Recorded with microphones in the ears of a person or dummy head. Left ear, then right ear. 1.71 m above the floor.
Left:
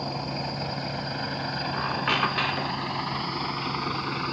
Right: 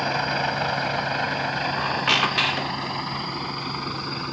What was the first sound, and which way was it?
A vehicle, 55° right (ahead or behind).